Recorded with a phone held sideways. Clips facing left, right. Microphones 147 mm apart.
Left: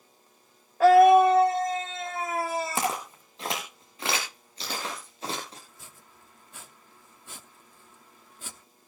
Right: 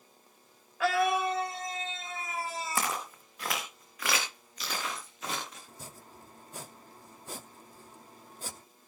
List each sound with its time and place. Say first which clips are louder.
0.8 s a scream: left 12 dB; 40° left (ahead or behind), 0.7 m; by 3.0 s 80° left, 3 m
2.8 s footsteps: left 4 dB; 20° left (ahead or behind), 4.5 m; by 5.6 s 35° left (ahead or behind), 8 m
5.7 s chopping: right 5 dB; 40° right (ahead or behind), 0.8 m